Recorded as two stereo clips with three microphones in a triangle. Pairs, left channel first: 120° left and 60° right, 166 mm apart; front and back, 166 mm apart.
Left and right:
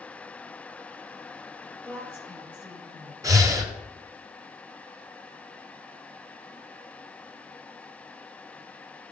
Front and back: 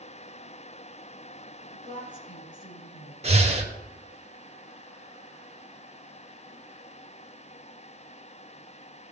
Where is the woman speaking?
40° left, 3 m.